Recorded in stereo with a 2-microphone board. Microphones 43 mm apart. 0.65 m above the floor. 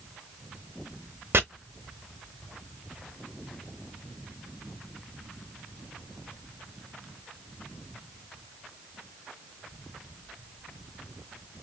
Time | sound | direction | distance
1.3 | chopping | 65° right (ahead or behind) | 0.6 m